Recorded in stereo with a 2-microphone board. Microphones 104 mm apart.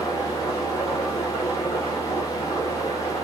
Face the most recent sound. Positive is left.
turn(degrees=65)  # may be behind; listen again after turning